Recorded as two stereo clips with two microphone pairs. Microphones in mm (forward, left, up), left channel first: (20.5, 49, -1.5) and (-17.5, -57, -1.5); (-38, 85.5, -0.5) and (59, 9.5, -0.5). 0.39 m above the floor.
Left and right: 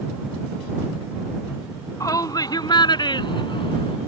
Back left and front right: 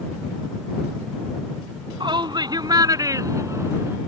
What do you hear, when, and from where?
2.0 s a shout: 10° left; by 4.0 s 30° left